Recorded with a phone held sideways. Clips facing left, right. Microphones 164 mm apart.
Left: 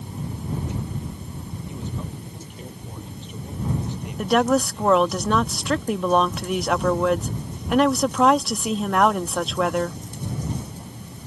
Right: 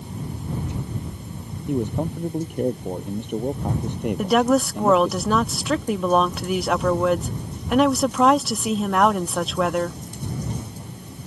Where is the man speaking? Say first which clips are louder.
Right 12 dB; 55° right (ahead or behind).